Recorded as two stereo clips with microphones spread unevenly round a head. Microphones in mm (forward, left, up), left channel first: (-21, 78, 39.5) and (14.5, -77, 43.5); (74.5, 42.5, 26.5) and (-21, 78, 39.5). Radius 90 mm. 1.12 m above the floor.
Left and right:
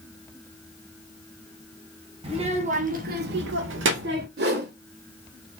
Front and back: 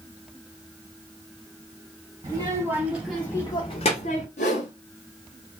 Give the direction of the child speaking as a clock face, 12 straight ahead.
4 o'clock.